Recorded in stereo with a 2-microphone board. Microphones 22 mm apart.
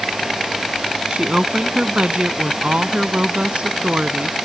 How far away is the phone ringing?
I don't hear a phone ringing.